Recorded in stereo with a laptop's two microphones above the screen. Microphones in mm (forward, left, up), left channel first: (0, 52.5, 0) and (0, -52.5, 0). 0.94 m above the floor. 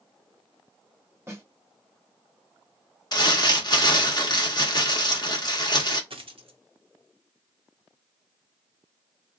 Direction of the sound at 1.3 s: 25° right (ahead or behind).